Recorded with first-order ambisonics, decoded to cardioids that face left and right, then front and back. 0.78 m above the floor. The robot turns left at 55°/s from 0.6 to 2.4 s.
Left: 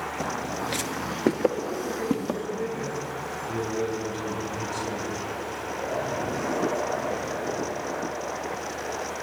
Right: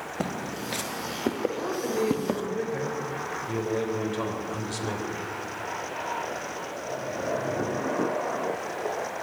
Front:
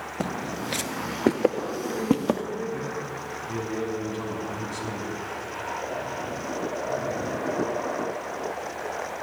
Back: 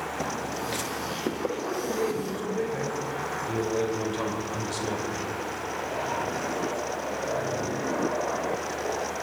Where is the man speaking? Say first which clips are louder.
Right 2 dB, back 1 dB; 90° right, 3 m; by 5.1 s 135° right, 3 m.